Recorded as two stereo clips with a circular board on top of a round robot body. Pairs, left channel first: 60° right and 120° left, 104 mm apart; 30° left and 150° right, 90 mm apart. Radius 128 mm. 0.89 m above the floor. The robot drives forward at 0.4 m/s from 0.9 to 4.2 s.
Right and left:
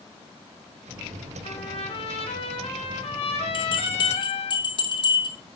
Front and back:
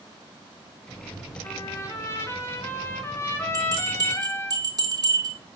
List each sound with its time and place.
1.4 s a trumpet: 30° right, 4.5 m; by 4.5 s 40° right, 3.5 m
3.5 s a bell: 100° right, 4 m; by 5.4 s 105° right, 4 m